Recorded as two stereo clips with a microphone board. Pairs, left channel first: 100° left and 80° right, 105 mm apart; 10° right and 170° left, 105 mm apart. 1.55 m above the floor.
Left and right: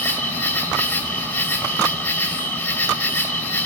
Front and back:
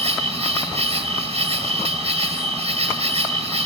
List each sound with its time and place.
0.0 s an insect: 175° left, 1.9 m